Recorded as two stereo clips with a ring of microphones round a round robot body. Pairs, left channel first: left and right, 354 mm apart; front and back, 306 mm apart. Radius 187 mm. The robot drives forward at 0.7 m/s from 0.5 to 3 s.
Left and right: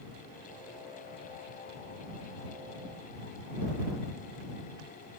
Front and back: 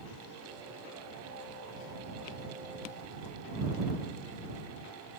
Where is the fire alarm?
I don't hear a fire alarm.